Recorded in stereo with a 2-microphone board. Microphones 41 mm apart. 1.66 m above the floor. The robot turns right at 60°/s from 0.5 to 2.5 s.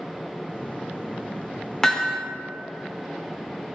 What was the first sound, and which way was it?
Hammering, 10° left (ahead or behind).